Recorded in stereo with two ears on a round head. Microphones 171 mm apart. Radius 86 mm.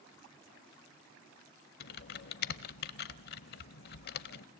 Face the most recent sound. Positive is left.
turn(degrees=55)  # may be behind; listen again after turning